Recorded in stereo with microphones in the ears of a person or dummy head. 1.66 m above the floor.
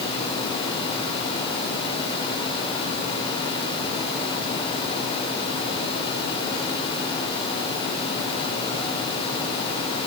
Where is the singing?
No singing in this recording.